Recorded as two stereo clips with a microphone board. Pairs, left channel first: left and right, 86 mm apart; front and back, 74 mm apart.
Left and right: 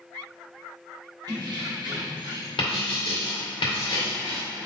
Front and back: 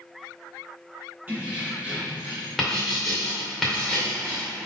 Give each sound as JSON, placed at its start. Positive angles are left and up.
{"t": 1.3, "sound": "keys jangling", "azimuth_deg": -115, "distance_m": 2.0}
{"t": 2.6, "sound": "writing", "azimuth_deg": 90, "distance_m": 1.9}